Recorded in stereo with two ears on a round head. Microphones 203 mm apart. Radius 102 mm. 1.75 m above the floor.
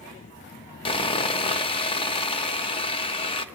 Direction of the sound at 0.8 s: 25° left (ahead or behind).